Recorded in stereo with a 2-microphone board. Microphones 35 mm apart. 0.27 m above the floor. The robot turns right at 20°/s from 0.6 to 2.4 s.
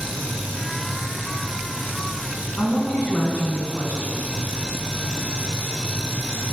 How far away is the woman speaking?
About 2.5 m.